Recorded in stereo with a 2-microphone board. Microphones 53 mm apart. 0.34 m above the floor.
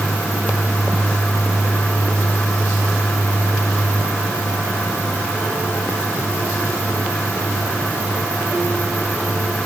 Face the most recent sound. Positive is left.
No sound to turn to.